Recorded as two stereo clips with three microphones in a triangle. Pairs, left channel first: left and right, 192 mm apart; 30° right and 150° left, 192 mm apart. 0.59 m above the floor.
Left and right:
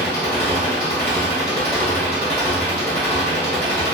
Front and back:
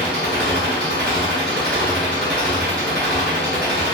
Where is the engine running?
165° left, 1.8 m.